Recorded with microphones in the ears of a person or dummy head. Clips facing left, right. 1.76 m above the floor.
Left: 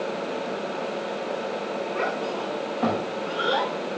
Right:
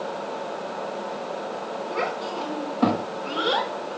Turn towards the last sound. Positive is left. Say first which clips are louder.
# right 1 dB
turn(degrees=-55)  # may be behind; listen again after turning